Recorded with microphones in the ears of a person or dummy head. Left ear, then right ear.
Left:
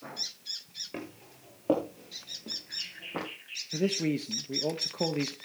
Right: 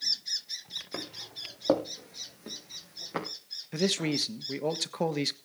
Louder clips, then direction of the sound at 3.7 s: Right 1 dB; 45° right (ahead or behind).